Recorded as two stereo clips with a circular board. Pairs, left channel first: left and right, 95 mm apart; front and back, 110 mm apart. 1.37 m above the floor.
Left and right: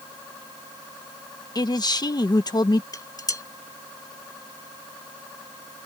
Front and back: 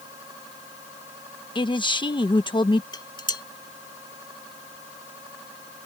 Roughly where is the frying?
I don't hear frying.